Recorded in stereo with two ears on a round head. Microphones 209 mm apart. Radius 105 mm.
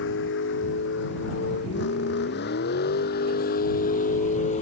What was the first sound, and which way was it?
A vehicle, 55° left (ahead or behind).